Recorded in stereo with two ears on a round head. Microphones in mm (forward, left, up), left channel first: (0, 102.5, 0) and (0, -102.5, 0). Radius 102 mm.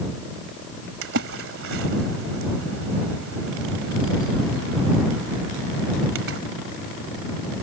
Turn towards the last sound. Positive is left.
turn(degrees=-55)  # may be behind; listen again after turning